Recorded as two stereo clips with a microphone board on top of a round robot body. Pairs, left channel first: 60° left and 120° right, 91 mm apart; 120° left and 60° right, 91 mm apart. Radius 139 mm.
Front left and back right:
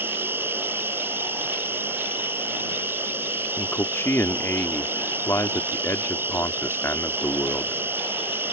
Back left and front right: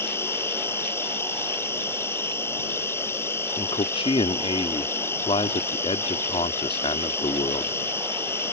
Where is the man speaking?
125° left.